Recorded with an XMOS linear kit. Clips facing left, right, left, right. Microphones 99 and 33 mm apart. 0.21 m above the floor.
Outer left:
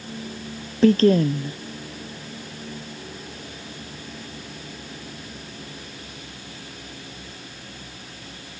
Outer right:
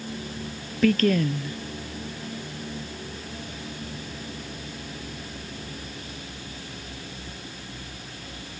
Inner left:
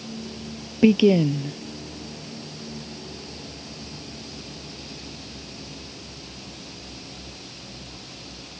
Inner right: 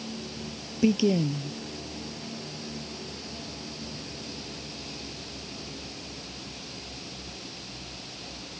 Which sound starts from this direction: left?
A woman speaking, at 0.8 s.